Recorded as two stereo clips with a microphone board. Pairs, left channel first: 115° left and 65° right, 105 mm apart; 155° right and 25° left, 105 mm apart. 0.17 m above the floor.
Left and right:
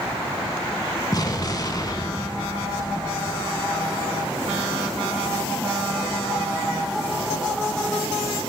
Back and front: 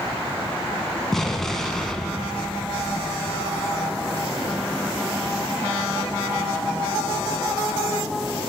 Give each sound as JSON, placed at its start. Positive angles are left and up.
{"t": 1.1, "sound": "an explosion", "azimuth_deg": 120, "distance_m": 0.6}